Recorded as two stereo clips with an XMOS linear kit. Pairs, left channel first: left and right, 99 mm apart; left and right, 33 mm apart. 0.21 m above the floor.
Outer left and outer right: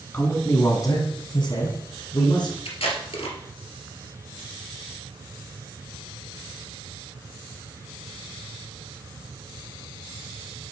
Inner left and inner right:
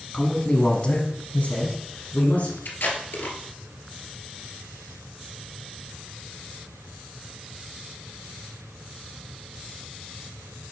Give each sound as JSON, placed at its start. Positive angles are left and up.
{"t": 0.1, "sound": "a man speaking", "side_deg": 20, "distance_m": 1.7}
{"t": 2.6, "sound": "tape being pulled", "side_deg": 75, "distance_m": 1.9}